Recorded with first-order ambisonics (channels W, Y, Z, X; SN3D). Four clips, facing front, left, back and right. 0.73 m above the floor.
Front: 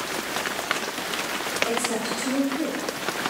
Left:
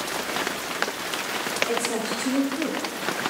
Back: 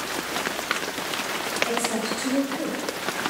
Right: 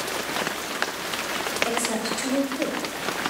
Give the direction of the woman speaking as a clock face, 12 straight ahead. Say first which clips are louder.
Even, even; 3 o'clock.